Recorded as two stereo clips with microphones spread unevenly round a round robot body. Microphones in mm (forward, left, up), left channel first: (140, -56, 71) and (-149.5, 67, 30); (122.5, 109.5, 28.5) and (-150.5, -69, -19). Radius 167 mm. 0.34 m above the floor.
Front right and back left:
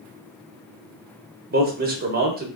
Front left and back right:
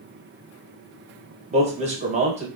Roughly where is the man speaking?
Behind.